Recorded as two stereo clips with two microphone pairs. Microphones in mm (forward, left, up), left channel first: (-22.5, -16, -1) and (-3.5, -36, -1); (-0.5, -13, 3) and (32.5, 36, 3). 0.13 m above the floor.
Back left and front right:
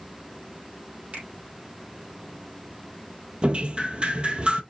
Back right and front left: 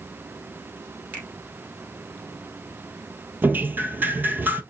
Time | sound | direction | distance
1.1 | a finger snap | 5° right | 3 m
3.4 | dripping | straight ahead | 0.6 m